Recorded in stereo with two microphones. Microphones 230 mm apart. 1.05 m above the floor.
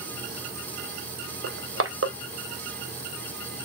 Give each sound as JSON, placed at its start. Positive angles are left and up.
{"t": 1.4, "sound": "crushing", "side_deg": -65, "distance_m": 0.9}